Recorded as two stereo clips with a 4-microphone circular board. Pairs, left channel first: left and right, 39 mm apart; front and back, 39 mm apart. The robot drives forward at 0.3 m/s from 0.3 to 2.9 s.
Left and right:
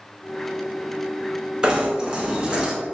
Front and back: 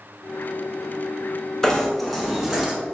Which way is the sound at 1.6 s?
65° right.